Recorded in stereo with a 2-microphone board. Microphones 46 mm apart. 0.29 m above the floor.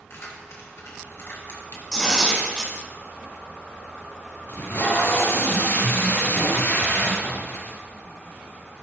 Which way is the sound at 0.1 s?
70° left (ahead or behind).